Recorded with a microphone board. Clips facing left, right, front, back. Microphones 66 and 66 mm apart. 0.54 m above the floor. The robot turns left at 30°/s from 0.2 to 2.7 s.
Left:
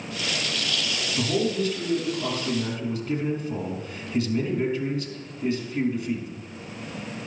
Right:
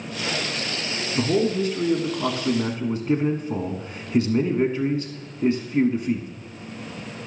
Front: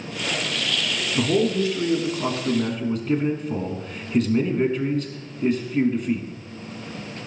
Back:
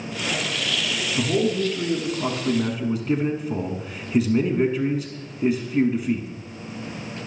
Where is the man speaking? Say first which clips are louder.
Right 4 dB, front 2 dB; 50° right, 1.0 m; by 6.3 s 100° right, 1.0 m.